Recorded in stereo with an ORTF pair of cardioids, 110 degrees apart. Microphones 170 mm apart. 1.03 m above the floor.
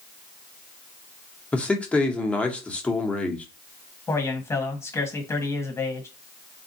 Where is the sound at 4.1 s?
15° left, 1.4 m.